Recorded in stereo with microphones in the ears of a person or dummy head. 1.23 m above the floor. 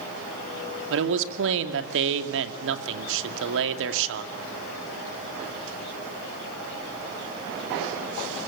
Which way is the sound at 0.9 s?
75° right (ahead or behind).